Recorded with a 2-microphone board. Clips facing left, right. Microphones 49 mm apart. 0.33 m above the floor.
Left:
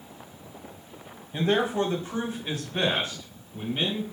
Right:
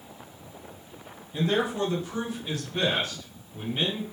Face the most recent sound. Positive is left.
turn(degrees=5)  # may be behind; listen again after turning